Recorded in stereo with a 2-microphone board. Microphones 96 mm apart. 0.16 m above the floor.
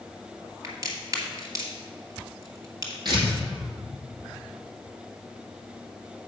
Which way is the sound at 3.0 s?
45° right (ahead or behind).